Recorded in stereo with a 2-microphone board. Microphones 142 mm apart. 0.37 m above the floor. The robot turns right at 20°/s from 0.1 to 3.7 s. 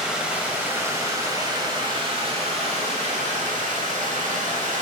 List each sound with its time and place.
0.0 s running water: 175° right, 1.0 m; by 4.8 s 100° right, 1.0 m